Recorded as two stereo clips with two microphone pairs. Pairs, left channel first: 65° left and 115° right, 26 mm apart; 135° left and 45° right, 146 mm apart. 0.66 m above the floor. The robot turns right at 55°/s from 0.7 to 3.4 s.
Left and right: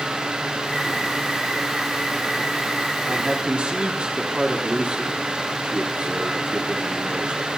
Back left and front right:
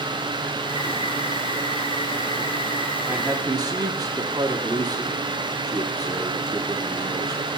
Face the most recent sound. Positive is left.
turn(degrees=-100)